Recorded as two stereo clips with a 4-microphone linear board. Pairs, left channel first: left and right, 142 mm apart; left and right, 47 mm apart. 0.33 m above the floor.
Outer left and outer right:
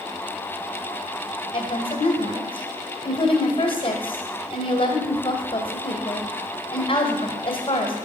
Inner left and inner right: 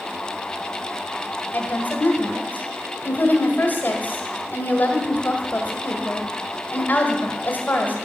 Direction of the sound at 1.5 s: 45° left (ahead or behind).